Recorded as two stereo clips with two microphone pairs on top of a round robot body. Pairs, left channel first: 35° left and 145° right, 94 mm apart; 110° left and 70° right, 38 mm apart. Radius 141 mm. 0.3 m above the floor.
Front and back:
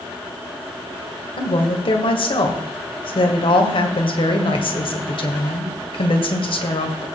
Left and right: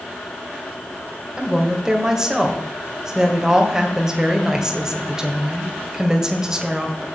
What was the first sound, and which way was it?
A woman speaking, 5° left.